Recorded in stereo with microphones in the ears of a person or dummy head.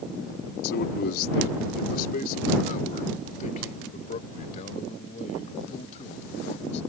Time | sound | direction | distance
0.6 | a man speaking | 60° left (ahead or behind) | ?